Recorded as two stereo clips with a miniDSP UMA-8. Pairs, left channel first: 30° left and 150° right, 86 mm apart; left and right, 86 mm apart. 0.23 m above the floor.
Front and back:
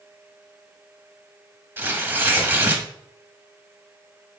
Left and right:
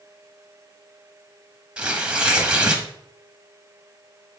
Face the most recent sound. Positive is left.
turn(degrees=-150)